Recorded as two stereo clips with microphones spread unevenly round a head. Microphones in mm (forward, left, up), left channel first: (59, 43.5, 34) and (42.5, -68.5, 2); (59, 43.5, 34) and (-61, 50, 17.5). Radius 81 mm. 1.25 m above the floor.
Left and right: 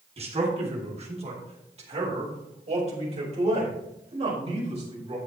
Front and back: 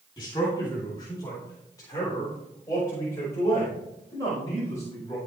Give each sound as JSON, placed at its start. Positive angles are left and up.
{"t": 0.2, "sound": "a man speaking", "azimuth_deg": -70, "distance_m": 2.5}